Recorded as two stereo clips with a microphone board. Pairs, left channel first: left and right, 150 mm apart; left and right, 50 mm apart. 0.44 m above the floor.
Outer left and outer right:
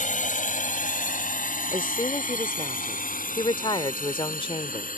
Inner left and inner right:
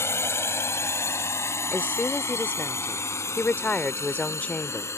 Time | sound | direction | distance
0.0 | a drone | 60° left (ahead or behind) | ?
1.7 | a woman speaking | 35° left (ahead or behind) | ?